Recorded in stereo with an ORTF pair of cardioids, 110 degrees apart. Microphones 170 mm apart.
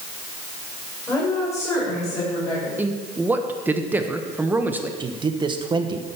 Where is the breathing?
I don't hear breathing.